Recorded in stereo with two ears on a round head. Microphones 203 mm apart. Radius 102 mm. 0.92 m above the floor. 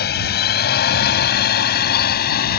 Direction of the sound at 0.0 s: 45° left (ahead or behind).